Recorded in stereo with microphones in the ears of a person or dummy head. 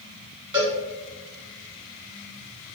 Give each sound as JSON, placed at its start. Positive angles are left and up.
{"t": 0.5, "sound": "a cowbell", "side_deg": -20, "distance_m": 1.1}